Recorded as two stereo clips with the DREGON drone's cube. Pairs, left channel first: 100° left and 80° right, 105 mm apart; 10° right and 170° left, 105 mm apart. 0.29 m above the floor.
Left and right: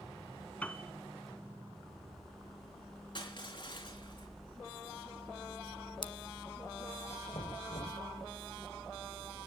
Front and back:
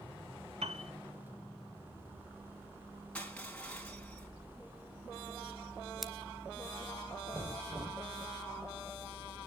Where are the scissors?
85° left, 1.1 m.